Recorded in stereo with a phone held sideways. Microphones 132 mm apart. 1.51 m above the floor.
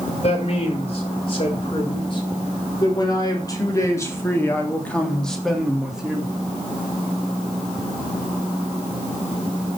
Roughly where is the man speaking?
Left.